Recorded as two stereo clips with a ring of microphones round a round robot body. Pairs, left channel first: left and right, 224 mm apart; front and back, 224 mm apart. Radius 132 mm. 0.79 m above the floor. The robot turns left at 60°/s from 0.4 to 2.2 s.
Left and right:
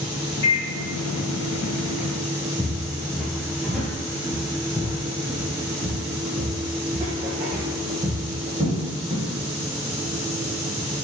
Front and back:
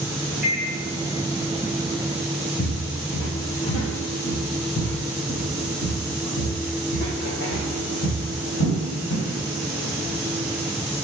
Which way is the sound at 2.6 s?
25° left.